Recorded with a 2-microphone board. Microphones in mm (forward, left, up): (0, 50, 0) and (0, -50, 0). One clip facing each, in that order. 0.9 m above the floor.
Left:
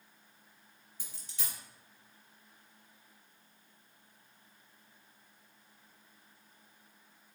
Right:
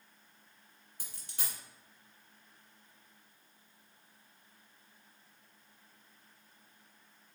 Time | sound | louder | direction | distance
1.0 | a dropped coin | right 1 dB | 55° right (ahead or behind) | 1.5 m